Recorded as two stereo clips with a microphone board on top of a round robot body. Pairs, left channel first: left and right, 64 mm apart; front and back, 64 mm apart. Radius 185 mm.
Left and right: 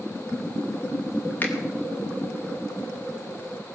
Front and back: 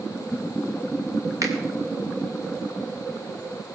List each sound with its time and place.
1.4 s a finger snap: 150° left, 2.5 m